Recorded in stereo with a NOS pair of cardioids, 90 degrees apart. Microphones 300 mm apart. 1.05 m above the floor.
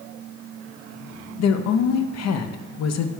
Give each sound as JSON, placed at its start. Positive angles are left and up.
{"t": 1.4, "sound": "a woman speaking", "azimuth_deg": 60, "distance_m": 0.7}